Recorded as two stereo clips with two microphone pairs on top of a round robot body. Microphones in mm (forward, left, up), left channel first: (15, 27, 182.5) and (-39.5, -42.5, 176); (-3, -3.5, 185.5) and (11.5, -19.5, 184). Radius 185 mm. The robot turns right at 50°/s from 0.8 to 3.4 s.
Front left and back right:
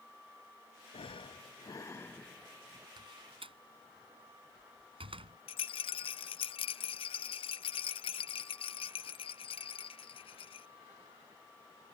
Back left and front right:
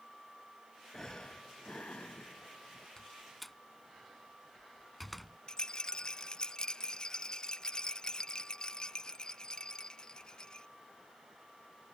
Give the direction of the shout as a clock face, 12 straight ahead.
No shout in this recording.